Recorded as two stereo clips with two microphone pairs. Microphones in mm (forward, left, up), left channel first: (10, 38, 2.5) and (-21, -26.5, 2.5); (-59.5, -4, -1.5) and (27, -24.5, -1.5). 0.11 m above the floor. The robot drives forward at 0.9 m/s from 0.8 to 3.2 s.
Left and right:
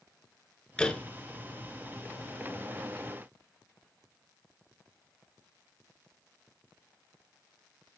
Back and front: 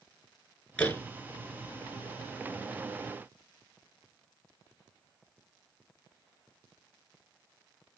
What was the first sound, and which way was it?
A door slam, 120° left.